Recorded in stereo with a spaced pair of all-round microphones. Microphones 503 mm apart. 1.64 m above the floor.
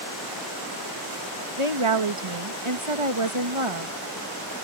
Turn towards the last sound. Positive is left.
turn(degrees=-75)  # may be behind; listen again after turning